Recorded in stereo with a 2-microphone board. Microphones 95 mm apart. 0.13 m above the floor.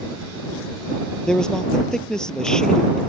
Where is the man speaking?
5° left (ahead or behind).